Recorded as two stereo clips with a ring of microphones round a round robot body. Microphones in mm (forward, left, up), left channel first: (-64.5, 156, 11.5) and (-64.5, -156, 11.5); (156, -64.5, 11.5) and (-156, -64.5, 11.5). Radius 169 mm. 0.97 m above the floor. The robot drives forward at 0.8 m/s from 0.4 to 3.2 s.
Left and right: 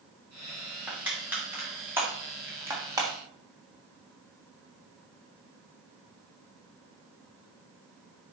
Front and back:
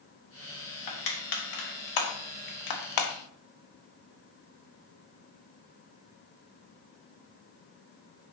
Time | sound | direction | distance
0.9 | crushing | 5° right | 3 m